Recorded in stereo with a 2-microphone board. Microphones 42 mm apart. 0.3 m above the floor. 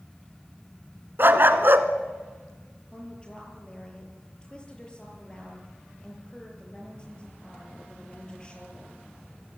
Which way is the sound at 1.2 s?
55° right (ahead or behind).